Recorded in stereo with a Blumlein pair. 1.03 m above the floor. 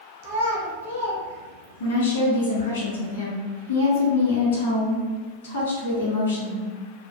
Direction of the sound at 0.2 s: 45° right.